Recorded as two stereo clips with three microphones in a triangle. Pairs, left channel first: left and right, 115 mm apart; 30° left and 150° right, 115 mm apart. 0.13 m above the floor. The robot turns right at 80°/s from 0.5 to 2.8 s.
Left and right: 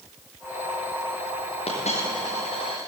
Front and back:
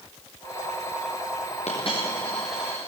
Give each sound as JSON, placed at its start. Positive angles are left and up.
{"t": 1.7, "sound": "a dropped coin", "azimuth_deg": 55, "distance_m": 6.5}